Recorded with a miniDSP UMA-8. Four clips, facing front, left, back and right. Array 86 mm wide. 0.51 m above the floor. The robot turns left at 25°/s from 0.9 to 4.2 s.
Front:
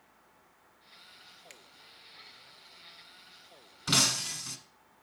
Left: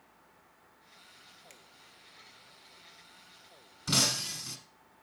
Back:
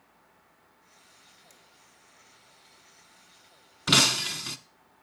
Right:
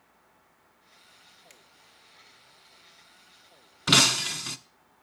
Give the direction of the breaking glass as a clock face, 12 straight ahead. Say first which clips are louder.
Right 8 dB, back 6 dB; 4 o'clock.